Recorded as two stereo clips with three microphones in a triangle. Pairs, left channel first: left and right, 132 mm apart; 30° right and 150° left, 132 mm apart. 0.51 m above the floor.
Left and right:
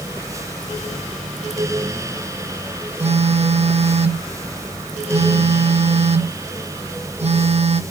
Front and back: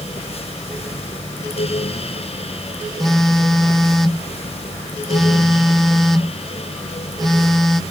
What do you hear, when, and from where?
3.0 s a phone buzzing: 120° right, 0.6 m